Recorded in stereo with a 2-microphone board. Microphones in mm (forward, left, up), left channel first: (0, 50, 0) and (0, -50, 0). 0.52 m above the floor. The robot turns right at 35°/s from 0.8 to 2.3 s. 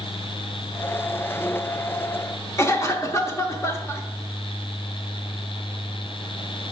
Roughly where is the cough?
Left.